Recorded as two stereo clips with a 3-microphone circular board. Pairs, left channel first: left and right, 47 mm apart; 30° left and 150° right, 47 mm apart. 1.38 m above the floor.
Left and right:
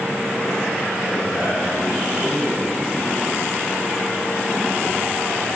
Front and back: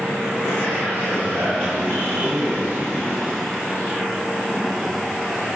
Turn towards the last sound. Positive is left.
turn(degrees=-170)